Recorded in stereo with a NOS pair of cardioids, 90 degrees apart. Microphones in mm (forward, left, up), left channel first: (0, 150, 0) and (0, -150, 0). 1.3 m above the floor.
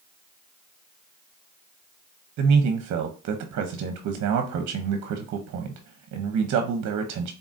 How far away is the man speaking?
About 0.8 m.